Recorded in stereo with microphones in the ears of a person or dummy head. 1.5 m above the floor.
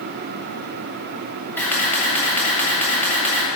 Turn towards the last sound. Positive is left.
turn(degrees=10)  # may be behind; listen again after turning